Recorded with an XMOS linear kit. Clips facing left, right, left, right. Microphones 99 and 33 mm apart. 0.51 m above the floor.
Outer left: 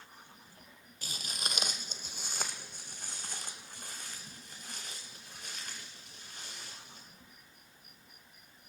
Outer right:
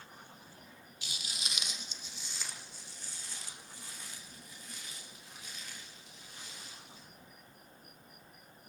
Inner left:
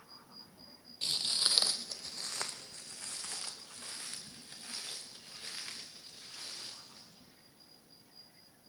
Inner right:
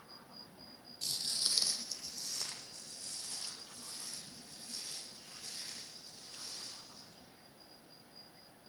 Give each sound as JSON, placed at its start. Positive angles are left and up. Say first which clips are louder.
{"t": 1.0, "sound": "footsteps", "louder": "outer left 4 dB, inner left 5 dB", "side_deg": 45, "distance_m": 0.7}